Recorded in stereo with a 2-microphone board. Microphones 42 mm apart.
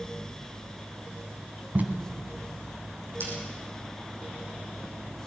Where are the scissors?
65° right (ahead or behind), 6.5 m.